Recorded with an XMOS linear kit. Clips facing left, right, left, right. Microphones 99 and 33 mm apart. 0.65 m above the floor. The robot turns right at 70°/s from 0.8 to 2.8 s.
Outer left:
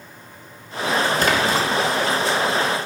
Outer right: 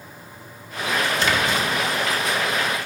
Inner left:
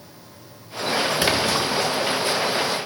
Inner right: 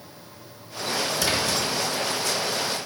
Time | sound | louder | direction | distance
1.2 | a splash | outer left 3 dB, inner left 4 dB | 50° left (ahead or behind) | 0.8 m